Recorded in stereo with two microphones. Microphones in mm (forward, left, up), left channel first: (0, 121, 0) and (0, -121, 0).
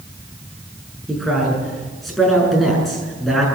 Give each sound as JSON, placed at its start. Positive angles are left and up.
{"t": 1.1, "sound": "a man speaking", "side_deg": 0, "distance_m": 7.0}